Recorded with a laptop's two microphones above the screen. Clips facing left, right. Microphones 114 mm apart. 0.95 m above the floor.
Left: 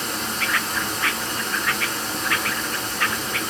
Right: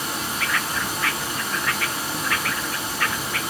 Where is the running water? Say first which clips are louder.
Even; 10° right (ahead or behind), 1.0 m.